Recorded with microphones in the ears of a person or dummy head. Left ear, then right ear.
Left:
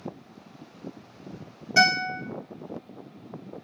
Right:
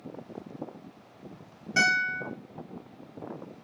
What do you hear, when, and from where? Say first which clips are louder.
1.8 s a guitar: left 3 dB; centre (ahead or behind), 1.5 m